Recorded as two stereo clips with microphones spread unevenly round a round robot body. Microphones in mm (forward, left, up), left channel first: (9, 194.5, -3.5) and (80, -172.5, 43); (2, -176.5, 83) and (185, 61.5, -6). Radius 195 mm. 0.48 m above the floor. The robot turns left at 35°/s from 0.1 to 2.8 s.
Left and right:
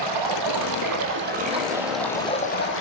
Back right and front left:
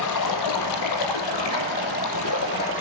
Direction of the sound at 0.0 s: 105° right.